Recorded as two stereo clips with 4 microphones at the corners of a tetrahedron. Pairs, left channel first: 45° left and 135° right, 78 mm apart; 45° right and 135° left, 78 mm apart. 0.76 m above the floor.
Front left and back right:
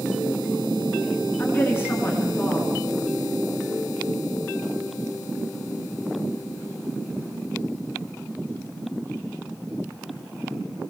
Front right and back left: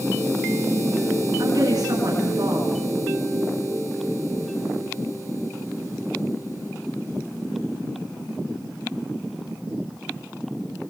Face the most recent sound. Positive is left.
turn(degrees=105)